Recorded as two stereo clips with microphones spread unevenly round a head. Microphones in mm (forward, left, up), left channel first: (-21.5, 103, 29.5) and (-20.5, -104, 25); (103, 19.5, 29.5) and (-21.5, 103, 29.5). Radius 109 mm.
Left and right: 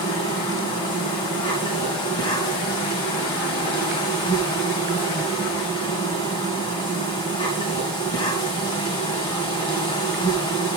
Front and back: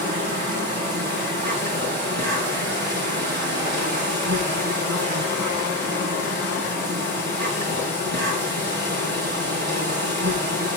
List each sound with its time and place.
0.0 s an insect: 160° left, 2 m